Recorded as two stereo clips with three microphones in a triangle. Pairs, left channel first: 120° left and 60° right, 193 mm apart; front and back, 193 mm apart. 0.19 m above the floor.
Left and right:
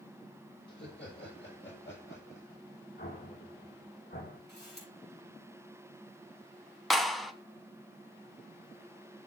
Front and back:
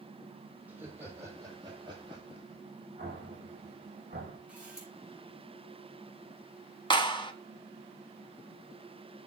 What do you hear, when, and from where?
0.7 s laughter: 100° left, 5.5 m; by 2.6 s 120° left, 7 m
3.0 s an explosion: 135° left, 7.5 m
4.5 s a camera shutter: 100° left, 6.5 m
6.9 s a clap: 30° left, 1.1 m